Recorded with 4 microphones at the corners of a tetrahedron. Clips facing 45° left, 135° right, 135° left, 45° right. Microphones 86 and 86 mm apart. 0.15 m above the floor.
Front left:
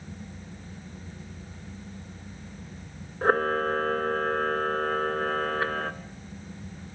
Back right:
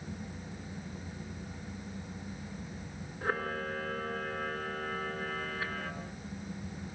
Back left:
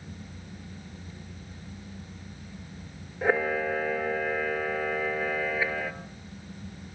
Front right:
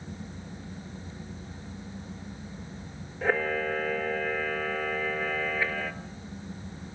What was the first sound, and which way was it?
A camera shutter, 55° left.